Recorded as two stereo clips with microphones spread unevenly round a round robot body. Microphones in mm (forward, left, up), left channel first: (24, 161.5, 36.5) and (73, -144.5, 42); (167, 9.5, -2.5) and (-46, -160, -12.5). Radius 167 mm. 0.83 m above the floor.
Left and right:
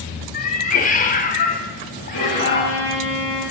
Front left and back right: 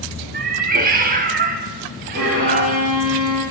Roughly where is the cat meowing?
Behind.